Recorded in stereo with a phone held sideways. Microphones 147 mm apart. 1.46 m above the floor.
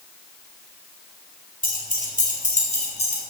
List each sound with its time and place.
1.6 s keys jangling: 65° left (ahead or behind), 3.5 m; by 3.2 s 40° left (ahead or behind), 4 m